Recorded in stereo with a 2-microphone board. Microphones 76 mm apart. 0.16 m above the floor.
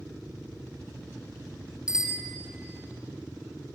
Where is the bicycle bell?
10° right (ahead or behind), 2.5 m.